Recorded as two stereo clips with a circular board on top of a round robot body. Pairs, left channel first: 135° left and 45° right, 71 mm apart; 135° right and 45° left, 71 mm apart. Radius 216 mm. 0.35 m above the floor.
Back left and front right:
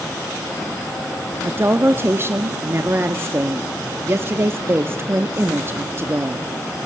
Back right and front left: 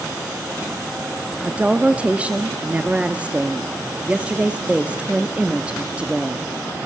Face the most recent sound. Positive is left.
turn(degrees=-20)